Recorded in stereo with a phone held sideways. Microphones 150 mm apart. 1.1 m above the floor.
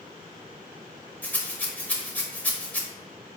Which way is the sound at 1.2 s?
10° left (ahead or behind).